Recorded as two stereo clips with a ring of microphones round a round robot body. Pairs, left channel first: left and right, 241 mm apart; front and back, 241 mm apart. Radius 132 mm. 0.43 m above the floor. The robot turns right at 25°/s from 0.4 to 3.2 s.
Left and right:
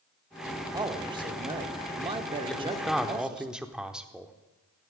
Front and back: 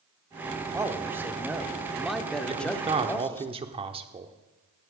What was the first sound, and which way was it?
A man speaking, 125° right.